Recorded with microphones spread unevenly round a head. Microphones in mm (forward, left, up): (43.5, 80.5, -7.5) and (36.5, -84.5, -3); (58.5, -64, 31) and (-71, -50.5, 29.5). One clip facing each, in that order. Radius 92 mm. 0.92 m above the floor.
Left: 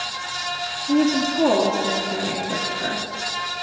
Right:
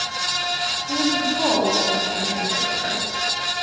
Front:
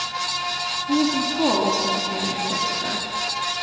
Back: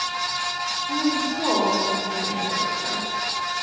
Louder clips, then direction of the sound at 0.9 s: Left 5 dB, front 3 dB; 45° left.